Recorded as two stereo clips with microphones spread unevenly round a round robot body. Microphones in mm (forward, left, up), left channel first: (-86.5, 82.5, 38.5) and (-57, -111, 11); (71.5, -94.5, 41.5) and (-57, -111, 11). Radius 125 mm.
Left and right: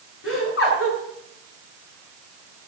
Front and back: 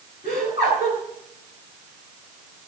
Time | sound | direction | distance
0.2 | laughter | 115° left | 6 m